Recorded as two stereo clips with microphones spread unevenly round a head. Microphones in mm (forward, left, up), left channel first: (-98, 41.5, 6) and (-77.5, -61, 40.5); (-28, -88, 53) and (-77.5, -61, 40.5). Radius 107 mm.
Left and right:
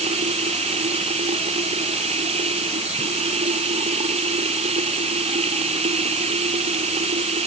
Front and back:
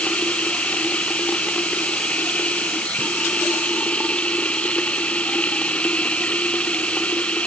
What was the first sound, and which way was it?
Running water, 95° right.